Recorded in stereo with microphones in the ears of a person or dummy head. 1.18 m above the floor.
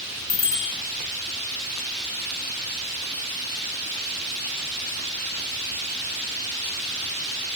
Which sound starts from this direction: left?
A bicycle bell, at 0.3 s.